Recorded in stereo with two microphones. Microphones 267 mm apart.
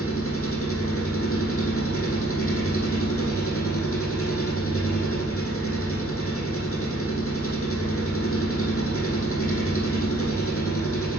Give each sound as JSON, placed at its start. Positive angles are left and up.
{"t": 0.0, "sound": "an engine running", "side_deg": 55, "distance_m": 4.5}